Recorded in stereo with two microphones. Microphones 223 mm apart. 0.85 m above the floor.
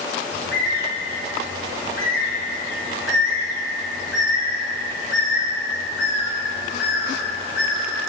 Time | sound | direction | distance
0.3 | a bird | 60° left (ahead or behind) | 1.5 m